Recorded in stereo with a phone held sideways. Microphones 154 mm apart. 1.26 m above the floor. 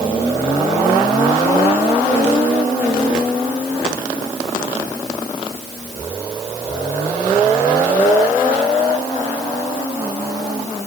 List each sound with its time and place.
Only background noise.